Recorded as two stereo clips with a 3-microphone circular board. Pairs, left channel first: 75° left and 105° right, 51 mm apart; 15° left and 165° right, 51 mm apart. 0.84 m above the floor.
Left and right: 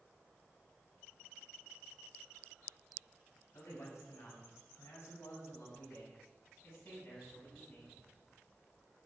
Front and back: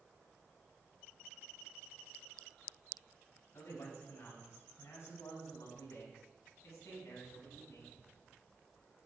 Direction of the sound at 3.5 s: 50° left.